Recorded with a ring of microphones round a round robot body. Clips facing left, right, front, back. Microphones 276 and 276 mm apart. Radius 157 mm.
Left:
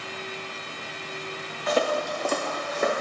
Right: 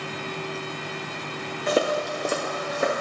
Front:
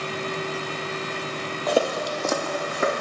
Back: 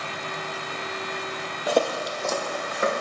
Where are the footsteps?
115° right, 0.5 m; by 3.0 s 5° right, 2.0 m.